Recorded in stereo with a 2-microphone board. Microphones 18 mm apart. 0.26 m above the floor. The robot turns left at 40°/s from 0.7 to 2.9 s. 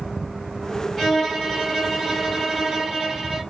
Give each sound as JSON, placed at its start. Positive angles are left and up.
{"t": 1.0, "sound": "a violin", "azimuth_deg": 30, "distance_m": 1.8}